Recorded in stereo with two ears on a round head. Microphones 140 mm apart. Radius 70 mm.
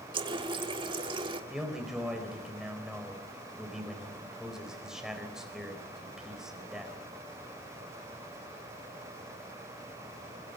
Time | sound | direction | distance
0.1 | a running tap | 30° right (ahead or behind) | 1.5 m
1.5 | a man speaking | 5° right (ahead or behind) | 4.5 m